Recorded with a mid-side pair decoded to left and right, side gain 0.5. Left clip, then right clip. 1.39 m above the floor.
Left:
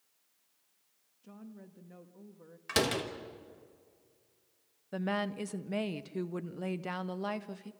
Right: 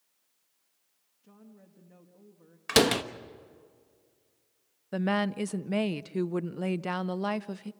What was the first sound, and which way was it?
A woman speaking, 25° left.